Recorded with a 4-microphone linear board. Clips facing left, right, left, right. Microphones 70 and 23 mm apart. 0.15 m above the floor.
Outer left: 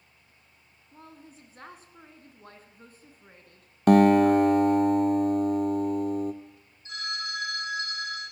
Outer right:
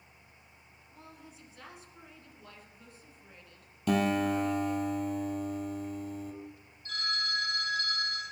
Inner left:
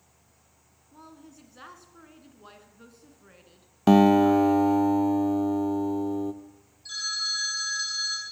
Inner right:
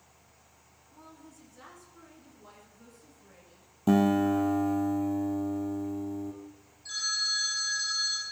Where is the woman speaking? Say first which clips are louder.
Outer left 3 dB, inner left 3 dB; 40° left (ahead or behind), 1.3 m.